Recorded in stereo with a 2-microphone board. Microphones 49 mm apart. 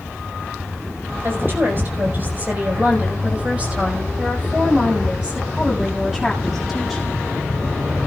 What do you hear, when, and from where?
1.2 s a woman speaking: 45° right (ahead or behind), 5 m; by 7.2 s 5° right (ahead or behind), 7 m